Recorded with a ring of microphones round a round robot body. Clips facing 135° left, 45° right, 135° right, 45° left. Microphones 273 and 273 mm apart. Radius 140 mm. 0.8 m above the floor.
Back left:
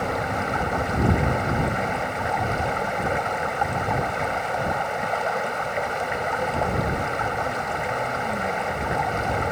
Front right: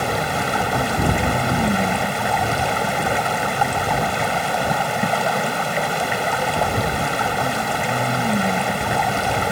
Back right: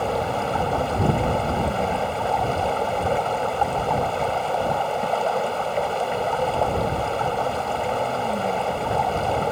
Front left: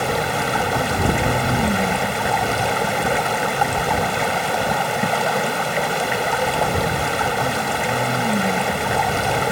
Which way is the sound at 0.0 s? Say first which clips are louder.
Front right 3 dB, front left 2 dB; 10° right.